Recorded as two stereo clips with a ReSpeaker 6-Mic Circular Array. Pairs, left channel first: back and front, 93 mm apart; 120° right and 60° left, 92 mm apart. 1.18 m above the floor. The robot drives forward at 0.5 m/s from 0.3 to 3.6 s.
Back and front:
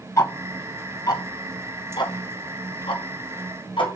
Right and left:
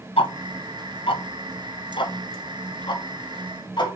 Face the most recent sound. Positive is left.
turn(degrees=-155)